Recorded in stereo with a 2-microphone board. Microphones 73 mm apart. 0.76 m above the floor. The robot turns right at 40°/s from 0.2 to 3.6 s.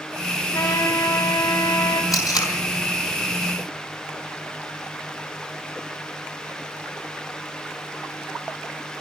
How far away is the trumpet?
About 5 m.